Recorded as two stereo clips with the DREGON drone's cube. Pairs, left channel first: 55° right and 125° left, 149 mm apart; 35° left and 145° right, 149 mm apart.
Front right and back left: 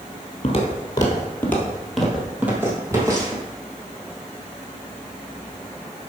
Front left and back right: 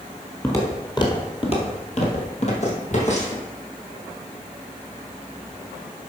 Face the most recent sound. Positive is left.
turn(degrees=65)